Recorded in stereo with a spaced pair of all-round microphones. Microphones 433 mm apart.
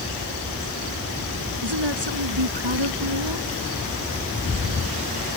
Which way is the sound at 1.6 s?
70° right (ahead or behind).